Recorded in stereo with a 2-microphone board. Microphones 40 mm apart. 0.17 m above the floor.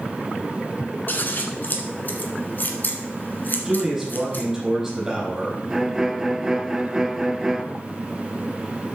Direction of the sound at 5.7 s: 15° right (ahead or behind).